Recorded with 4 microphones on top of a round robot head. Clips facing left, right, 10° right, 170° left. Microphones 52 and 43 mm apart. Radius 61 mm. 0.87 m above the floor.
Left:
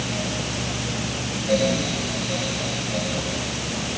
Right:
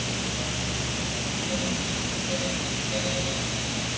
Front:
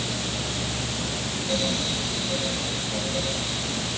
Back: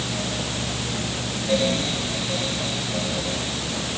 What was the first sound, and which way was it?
Only background noise.